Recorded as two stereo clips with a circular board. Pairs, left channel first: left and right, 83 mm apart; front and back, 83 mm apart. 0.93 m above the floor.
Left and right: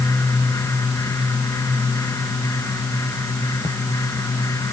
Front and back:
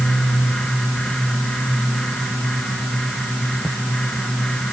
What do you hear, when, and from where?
Only background noise.